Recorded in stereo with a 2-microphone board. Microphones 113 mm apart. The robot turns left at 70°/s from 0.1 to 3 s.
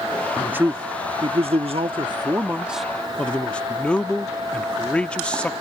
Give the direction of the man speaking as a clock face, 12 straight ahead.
12 o'clock.